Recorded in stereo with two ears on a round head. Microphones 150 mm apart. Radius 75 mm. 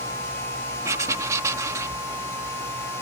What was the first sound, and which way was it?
Writing, 20° right (ahead or behind).